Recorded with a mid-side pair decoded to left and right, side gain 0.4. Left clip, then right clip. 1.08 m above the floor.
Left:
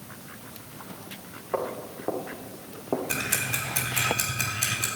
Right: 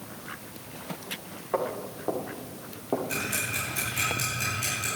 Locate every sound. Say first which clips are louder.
1.5 s footsteps: right 1 dB; 10° left, 5 m; by 3.0 s 15° left, 3 m
3.1 s ticking: left 2 dB; 70° left, 4.5 m